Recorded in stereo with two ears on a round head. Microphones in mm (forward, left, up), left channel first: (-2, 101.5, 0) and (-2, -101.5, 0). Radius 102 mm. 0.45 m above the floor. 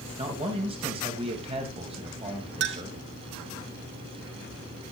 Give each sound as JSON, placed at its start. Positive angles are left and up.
{"t": 0.2, "sound": "a man speaking", "side_deg": -25, "distance_m": 2.5}
{"t": 2.6, "sound": "a clink", "side_deg": -50, "distance_m": 1.2}